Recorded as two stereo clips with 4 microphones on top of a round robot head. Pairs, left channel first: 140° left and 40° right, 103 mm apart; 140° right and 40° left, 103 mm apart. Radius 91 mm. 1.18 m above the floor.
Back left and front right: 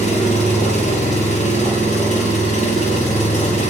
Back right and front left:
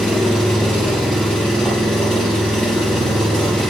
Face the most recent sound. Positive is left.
turn(degrees=135)